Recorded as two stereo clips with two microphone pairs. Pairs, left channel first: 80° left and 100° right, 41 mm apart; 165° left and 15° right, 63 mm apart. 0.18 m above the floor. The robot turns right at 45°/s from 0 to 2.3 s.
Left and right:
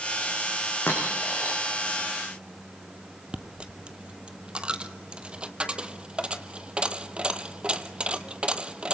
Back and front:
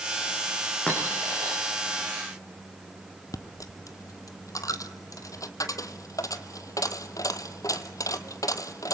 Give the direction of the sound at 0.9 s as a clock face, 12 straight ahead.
9 o'clock.